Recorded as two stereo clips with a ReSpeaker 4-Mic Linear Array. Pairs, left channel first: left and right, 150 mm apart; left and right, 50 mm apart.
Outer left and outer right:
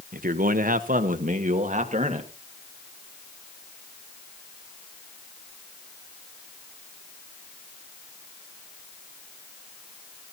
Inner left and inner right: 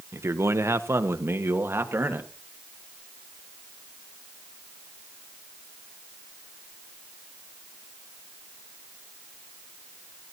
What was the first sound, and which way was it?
A man speaking, 65° right (ahead or behind).